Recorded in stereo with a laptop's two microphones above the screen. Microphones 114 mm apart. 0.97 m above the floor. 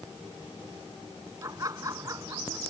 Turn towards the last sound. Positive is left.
turn(degrees=-30)  # may be behind; listen again after turning